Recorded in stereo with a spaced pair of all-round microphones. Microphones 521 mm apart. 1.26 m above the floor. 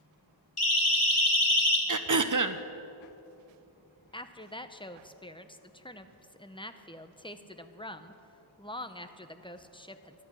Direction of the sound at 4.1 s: 10° left (ahead or behind).